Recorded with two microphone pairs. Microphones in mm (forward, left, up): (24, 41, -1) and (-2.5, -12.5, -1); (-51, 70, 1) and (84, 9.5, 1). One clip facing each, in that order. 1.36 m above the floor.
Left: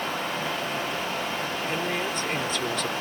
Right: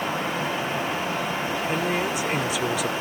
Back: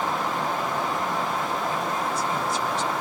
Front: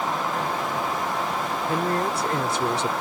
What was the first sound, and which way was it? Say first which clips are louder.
A woman speaking: right 4 dB, front 3 dB; 35° right.